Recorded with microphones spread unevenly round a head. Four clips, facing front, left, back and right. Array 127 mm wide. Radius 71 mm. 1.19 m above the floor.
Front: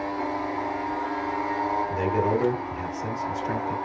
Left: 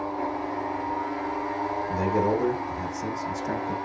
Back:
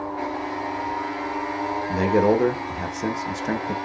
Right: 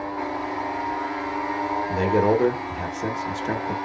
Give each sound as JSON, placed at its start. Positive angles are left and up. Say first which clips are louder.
{"t": 1.9, "sound": "a man speaking", "louder": "right 5 dB, back 5 dB", "azimuth_deg": -145, "distance_m": 1.1}